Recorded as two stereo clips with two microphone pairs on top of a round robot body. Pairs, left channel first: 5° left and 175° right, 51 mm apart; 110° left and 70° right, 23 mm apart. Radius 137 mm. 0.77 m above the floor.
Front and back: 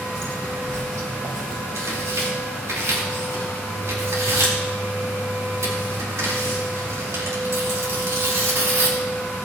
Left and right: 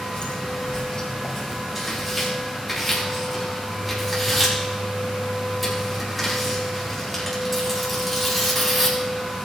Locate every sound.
0.1 s footsteps: 150° left, 2 m; by 1.6 s 175° left, 1.4 m
1.8 s tearing paper: 155° right, 4.5 m